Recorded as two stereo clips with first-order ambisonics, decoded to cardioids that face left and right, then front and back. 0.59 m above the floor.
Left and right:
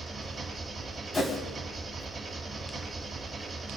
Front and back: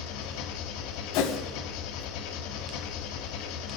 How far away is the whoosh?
About 3 m.